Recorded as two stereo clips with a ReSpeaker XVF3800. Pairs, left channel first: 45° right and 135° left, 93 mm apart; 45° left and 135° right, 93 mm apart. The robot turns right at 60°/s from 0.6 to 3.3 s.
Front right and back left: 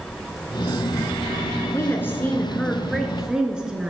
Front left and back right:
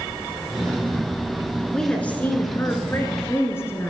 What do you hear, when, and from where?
1.7 s a woman speaking: 30° right, 1.4 m; by 3.9 s 60° left, 1.4 m